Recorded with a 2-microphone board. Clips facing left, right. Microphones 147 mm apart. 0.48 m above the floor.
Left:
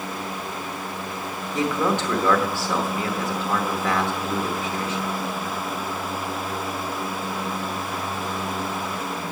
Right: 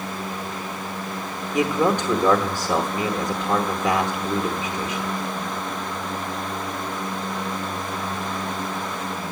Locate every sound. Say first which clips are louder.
1.5 s a man speaking: right 3 dB; 15° right (ahead or behind), 0.9 m